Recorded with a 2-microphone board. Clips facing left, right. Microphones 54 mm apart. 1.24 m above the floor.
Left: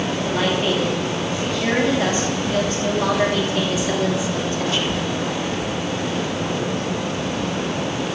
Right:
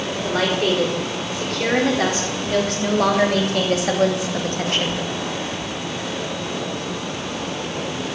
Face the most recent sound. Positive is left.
turn(degrees=-50)  # may be behind; listen again after turning